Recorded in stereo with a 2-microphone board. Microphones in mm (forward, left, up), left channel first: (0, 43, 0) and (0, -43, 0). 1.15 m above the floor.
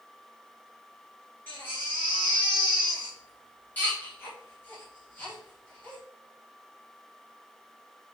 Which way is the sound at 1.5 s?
20° left (ahead or behind).